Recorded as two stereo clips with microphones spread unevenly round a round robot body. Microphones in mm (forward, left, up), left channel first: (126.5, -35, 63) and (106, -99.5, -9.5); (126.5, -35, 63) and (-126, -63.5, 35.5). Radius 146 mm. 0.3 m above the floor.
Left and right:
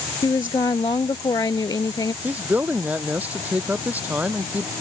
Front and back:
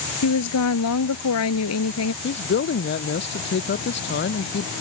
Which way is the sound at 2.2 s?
40° right.